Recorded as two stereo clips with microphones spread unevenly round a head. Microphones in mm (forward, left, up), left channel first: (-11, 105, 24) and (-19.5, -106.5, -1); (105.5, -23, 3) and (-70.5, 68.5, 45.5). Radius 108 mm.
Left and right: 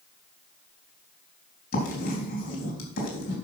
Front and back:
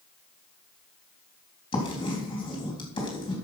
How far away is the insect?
No insect in this recording.